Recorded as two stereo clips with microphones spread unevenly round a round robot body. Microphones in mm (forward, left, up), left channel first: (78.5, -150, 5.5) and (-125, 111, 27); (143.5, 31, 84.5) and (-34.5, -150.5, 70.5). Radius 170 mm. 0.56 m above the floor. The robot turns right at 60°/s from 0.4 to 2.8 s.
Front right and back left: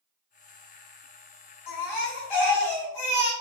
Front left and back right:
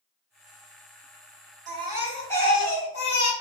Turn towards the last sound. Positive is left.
turn(degrees=-5)